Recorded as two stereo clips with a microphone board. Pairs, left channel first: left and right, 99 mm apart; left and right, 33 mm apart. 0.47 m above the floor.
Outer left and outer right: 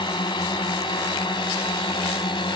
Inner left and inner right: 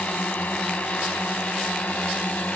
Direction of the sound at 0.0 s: 50° left (ahead or behind).